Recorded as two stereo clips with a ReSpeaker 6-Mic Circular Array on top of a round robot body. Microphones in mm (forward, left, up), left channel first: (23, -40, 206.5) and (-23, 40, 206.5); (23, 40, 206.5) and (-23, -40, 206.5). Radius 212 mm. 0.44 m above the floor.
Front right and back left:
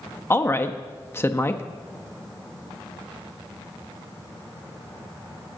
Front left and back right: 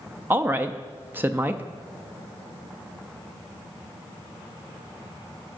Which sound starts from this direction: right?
A woman speaking, at 0.3 s.